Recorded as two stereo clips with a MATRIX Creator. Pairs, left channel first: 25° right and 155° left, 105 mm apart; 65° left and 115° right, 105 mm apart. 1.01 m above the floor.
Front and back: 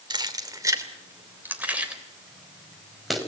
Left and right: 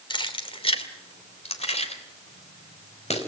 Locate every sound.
0.1 s keys jangling: 110° left, 2.5 m; by 3.2 s 65° left, 4.5 m